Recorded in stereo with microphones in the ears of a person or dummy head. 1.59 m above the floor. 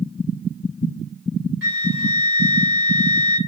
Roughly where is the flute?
Right.